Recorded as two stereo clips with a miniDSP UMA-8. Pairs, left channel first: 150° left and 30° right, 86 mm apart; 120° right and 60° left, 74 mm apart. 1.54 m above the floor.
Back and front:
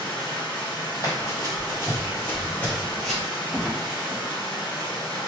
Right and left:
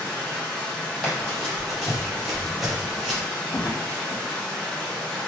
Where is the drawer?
110° right, 1.2 m.